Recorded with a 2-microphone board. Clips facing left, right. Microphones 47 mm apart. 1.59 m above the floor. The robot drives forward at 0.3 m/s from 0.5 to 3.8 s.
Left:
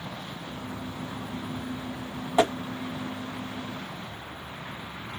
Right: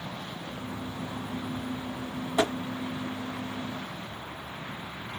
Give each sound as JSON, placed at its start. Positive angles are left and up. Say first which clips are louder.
{"t": 2.4, "sound": "tapping", "louder": "left 4 dB", "side_deg": 35, "distance_m": 1.7}